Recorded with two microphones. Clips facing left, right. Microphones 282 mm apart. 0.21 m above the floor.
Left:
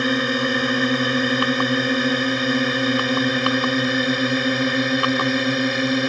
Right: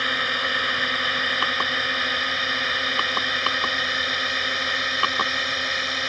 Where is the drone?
55° left (ahead or behind); by 6.1 s 60° left (ahead or behind).